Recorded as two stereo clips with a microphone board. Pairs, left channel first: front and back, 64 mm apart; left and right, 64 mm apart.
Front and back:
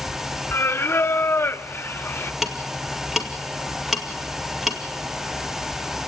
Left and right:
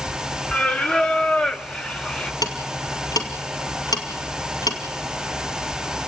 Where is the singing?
20° left, 0.6 m.